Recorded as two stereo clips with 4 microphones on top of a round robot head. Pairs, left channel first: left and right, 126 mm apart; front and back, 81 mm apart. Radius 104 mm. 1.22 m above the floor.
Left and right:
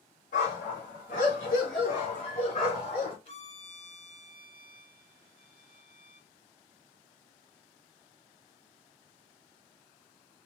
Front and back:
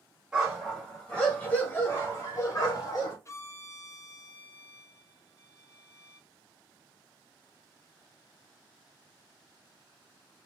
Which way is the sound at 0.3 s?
95° left.